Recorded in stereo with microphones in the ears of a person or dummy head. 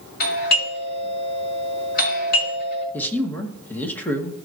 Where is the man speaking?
10° left (ahead or behind), 1.6 m.